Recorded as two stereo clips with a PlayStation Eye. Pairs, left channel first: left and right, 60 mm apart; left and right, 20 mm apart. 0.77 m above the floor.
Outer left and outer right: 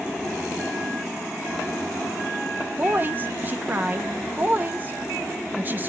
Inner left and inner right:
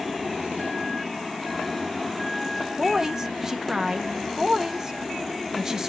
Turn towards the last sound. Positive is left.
turn(degrees=-30)  # may be behind; listen again after turning